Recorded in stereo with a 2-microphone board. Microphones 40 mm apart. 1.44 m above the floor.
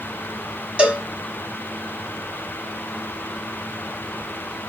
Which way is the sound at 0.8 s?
30° right (ahead or behind).